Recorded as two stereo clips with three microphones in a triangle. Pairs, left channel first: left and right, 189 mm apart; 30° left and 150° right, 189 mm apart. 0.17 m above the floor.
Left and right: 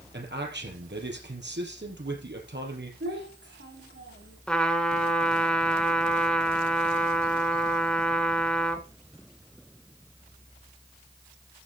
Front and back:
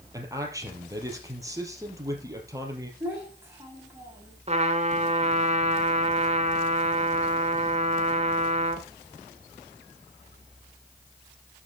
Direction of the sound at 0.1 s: 80° right.